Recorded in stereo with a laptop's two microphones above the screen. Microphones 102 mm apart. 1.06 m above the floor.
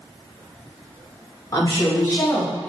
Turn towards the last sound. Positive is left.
turn(degrees=15)  # may be behind; listen again after turning